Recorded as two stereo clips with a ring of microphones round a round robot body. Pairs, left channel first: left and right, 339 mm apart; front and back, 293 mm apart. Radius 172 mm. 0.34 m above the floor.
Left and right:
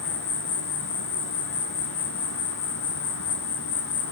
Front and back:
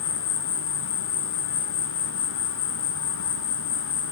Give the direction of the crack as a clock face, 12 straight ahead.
I don't hear a crack.